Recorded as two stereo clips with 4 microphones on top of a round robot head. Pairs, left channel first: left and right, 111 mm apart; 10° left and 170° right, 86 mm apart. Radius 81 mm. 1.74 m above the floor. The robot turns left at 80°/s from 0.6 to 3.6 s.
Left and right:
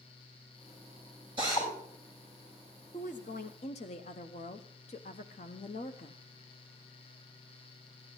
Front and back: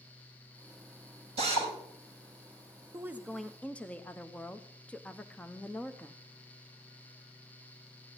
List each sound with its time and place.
1.4 s a drill: 150° right, 5.5 m; by 1.7 s 175° right, 5.5 m
2.9 s a woman speaking: 135° left, 0.7 m; by 6.2 s 80° left, 0.7 m